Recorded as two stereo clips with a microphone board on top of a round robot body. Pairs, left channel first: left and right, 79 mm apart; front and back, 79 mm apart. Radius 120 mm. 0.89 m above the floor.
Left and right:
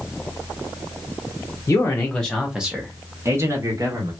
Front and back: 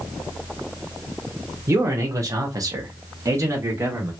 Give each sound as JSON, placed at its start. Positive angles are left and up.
{"t": 1.7, "sound": "a man speaking", "azimuth_deg": 140, "distance_m": 0.9}